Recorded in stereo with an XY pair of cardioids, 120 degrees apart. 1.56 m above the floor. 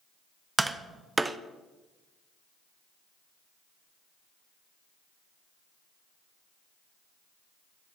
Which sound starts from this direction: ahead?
Tapping, at 0.6 s.